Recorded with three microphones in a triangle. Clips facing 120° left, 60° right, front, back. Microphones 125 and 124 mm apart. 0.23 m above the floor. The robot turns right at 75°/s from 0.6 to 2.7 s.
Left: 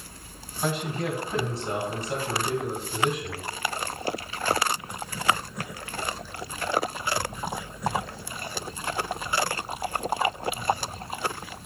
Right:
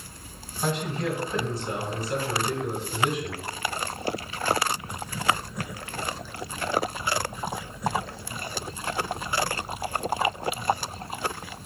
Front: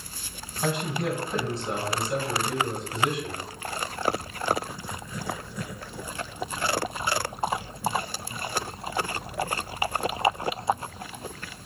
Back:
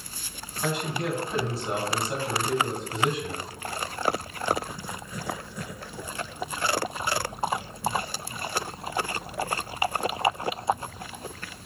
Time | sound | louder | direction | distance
0.6 | a man speaking | even, front 1 dB | 35° left | 1.1 m